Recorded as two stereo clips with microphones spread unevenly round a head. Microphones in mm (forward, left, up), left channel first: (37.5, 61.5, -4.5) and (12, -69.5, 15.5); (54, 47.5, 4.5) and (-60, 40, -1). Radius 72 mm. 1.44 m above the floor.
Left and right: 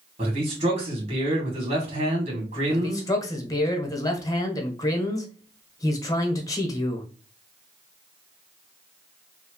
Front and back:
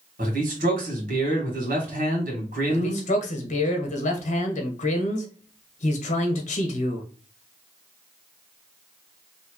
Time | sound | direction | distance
0.2 | a man speaking | 155° right | 1.9 m
2.7 | a man speaking | 15° left | 1.2 m